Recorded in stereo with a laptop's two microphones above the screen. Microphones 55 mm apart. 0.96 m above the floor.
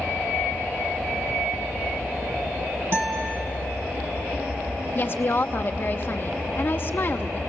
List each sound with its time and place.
2.9 s a guitar: 55° right (ahead or behind), 2 m
5.0 s a woman speaking: 40° left (ahead or behind), 0.8 m